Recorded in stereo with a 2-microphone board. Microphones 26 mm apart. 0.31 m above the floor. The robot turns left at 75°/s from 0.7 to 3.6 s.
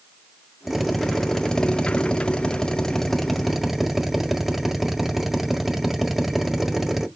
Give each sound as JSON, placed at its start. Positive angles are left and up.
{"t": 0.7, "sound": "a drill", "azimuth_deg": -160, "distance_m": 1.6}